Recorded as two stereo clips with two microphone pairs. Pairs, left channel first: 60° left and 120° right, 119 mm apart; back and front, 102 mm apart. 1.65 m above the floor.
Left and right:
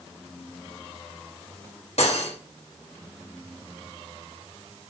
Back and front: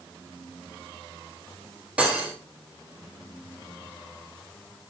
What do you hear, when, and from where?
2.0 s cutlery clinking: 75° left, 3.5 m